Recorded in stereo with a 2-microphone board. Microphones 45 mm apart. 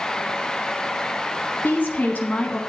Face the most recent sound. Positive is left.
turn(degrees=35)  # may be behind; listen again after turning